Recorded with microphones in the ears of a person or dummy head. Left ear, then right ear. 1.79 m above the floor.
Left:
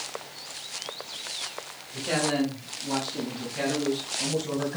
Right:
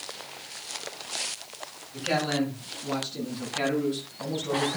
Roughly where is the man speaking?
Centre.